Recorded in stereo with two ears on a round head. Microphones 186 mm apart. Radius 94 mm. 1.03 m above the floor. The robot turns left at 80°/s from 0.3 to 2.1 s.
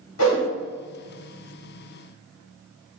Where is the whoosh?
70° left (ahead or behind), 1.6 m; by 0.5 s 60° left (ahead or behind), 1.6 m.